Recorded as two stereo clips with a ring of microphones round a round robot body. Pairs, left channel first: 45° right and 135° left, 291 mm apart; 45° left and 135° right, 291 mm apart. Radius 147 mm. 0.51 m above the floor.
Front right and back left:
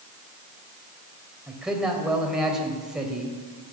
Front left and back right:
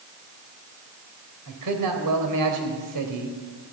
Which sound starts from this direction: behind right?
A man speaking, at 1.5 s.